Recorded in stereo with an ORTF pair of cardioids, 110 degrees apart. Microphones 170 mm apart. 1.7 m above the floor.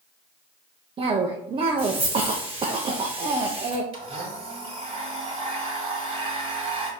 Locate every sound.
1.0 s a cough: 30° right, 0.7 m
3.9 s a blender: 35° right, 2 m